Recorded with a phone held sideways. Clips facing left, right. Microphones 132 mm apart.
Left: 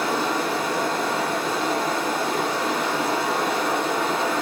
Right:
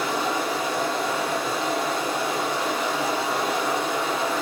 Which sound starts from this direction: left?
Running water, at 0.0 s.